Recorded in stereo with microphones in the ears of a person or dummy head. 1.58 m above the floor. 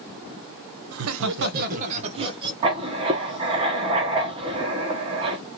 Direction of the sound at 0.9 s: 75° right (ahead or behind).